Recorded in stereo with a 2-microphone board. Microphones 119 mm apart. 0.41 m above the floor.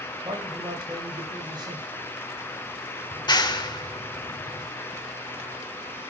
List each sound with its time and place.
0.2 s a man speaking: 40° right (ahead or behind), 2 m
3.1 s a clap: 35° left (ahead or behind), 0.9 m